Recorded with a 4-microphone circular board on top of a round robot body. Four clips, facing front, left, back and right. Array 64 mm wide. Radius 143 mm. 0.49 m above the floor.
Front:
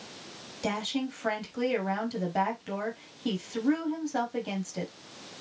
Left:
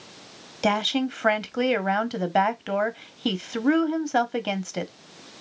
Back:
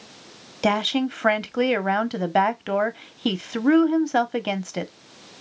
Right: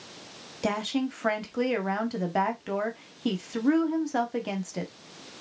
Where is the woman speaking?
155° left, 1.1 m.